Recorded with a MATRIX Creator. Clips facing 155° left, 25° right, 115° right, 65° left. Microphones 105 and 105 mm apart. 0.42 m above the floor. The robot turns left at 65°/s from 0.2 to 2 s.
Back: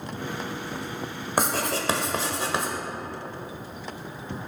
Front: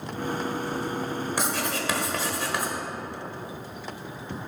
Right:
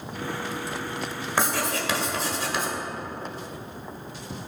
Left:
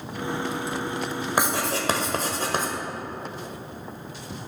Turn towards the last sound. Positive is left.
turn(degrees=100)